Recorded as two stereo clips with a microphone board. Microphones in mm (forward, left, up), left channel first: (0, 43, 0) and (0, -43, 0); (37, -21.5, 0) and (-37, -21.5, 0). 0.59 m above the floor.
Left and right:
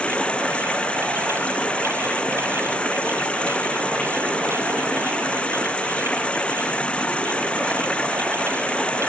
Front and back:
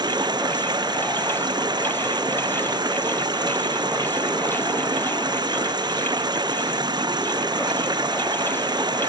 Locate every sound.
0.0 s running water: 165° left